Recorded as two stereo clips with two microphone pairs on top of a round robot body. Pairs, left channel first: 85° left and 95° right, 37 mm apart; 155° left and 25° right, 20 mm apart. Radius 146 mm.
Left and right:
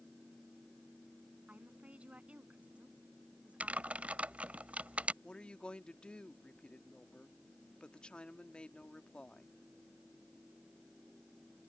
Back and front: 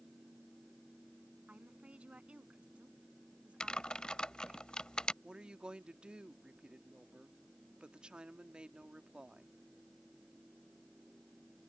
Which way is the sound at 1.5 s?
35° right.